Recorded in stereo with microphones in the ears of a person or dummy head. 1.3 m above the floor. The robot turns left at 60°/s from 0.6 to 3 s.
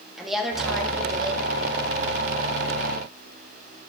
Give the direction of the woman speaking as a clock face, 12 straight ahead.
12 o'clock.